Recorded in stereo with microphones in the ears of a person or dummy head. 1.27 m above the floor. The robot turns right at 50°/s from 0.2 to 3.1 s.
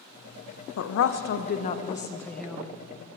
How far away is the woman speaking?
About 0.8 m.